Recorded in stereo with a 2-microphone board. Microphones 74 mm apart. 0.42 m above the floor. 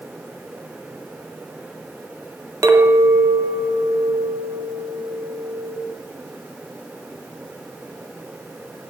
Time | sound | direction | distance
2.6 | a clink | 40° right (ahead or behind) | 0.8 m